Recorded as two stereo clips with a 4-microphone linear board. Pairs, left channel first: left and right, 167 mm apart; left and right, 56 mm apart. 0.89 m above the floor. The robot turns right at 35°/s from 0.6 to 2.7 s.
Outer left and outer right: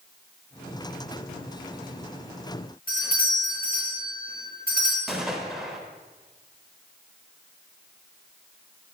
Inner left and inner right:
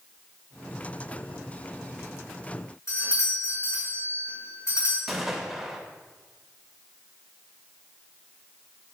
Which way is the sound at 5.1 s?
Centre (ahead or behind).